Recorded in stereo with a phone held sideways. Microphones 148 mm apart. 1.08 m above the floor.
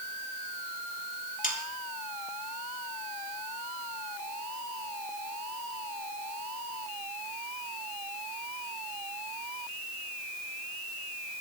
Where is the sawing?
75° left (ahead or behind), 3 m.